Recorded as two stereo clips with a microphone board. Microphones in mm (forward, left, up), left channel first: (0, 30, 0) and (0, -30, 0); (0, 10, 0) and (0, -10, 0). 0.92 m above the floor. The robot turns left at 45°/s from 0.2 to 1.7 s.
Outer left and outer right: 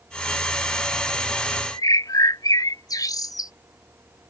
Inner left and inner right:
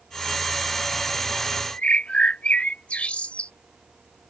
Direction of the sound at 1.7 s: 75° left (ahead or behind).